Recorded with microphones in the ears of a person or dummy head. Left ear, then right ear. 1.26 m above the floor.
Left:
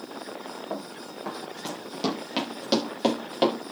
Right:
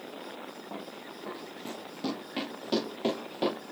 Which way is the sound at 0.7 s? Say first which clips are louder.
Left 6 dB; 55° left (ahead or behind).